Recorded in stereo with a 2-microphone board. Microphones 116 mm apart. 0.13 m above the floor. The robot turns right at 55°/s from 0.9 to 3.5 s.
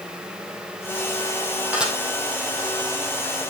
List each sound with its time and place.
1.7 s dishes clattering: 10° right (ahead or behind), 3 m; by 1.9 s centre (ahead or behind), 3 m